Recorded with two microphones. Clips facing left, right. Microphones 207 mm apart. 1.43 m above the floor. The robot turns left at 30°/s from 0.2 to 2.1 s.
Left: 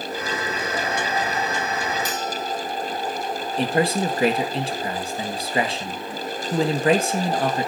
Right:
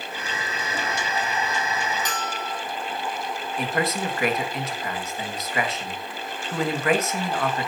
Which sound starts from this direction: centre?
A bell, at 2.0 s.